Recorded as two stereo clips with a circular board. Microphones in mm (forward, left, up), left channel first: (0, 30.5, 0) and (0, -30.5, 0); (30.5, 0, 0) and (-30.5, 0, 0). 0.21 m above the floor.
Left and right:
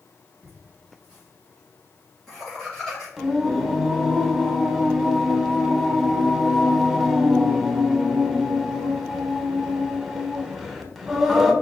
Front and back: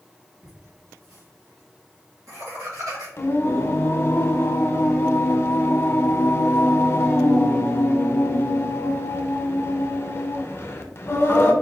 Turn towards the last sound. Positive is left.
turn(degrees=-10)